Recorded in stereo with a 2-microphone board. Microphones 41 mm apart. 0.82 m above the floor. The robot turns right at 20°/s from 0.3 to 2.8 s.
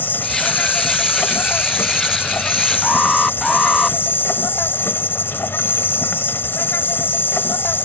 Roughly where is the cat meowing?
I don't hear a cat meowing.